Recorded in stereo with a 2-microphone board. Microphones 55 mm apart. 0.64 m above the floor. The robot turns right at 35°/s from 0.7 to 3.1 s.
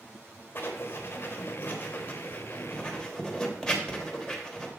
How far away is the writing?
About 1.1 m.